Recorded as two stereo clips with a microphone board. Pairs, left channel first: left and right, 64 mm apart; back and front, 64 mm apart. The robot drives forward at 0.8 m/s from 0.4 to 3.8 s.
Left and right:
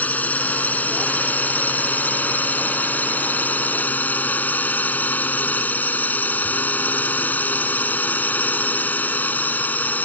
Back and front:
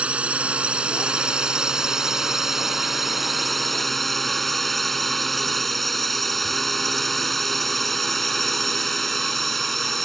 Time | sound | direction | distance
0.0 | a drone | 55° left | ?